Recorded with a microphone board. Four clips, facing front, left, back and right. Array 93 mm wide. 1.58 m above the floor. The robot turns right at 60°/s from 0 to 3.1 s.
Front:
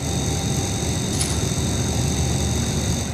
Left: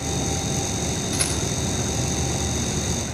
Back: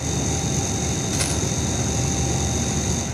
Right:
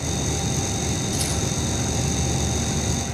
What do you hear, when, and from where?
1.1 s a rattle: 135° left, 3.5 m; by 1.4 s 150° left, 3.5 m